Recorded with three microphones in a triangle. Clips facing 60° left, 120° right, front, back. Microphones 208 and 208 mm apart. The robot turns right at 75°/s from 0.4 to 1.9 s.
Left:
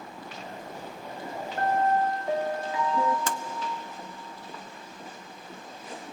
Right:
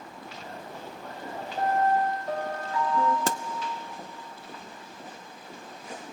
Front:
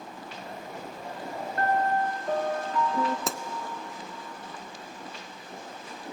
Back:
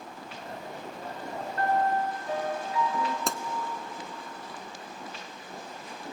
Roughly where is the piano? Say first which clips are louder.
Even, even; ahead right.